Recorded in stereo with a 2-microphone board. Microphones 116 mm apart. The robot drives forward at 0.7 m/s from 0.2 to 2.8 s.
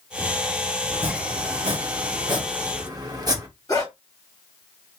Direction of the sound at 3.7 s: 30° left (ahead or behind).